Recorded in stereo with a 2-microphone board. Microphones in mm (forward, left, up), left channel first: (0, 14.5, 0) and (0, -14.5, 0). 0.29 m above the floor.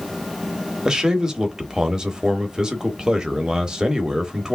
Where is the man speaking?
25° right (ahead or behind), 0.9 m.